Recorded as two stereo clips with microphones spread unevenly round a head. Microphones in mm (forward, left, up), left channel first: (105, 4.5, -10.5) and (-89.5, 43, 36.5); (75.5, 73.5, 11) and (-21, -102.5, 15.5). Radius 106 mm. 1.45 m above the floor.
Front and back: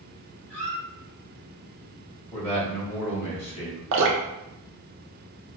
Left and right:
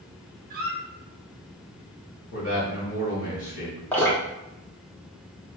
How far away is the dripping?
About 0.7 m.